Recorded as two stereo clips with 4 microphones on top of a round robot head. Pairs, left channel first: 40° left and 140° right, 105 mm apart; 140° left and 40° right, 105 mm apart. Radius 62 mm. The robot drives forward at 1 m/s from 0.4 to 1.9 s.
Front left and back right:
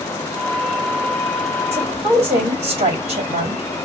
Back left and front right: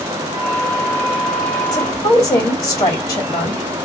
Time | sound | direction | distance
1.7 | a woman speaking | 165° right | 2.5 m